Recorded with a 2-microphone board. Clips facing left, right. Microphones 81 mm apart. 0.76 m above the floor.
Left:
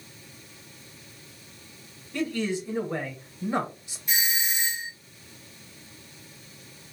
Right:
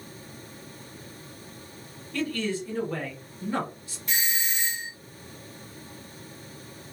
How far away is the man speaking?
About 1.0 m.